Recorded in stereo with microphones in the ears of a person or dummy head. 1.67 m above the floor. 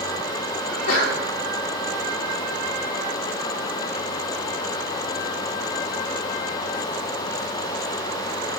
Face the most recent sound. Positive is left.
turn(degrees=85)